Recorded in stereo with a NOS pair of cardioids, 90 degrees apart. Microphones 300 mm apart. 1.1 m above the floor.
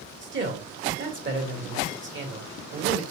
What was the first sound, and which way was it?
A man speaking, 40° right.